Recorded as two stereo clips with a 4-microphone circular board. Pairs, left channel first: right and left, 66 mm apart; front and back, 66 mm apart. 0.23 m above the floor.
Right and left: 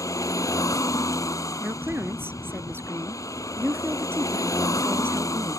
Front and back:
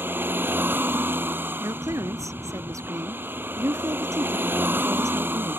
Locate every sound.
0.0 s a vehicle: 120° right
1.6 s a woman speaking: 145° left